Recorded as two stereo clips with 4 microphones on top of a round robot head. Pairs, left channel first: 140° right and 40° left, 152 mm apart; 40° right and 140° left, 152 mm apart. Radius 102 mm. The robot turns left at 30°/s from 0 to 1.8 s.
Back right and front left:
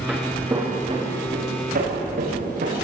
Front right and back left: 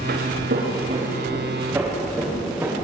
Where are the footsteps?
120° left, 6.5 m; by 2.8 s 60° left, 8.5 m.